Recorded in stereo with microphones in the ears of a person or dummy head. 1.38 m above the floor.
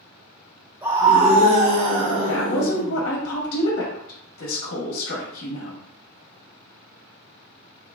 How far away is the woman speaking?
About 0.8 m.